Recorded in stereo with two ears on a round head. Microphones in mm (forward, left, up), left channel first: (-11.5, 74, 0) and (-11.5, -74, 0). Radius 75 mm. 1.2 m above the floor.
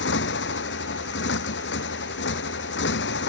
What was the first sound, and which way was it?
A motorcycle, 85° left.